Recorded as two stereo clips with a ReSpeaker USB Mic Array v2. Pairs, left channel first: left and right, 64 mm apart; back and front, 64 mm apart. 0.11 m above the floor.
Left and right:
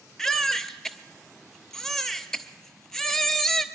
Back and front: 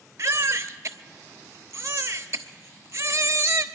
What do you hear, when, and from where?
0.2 s a baby crying: 10° left, 0.8 m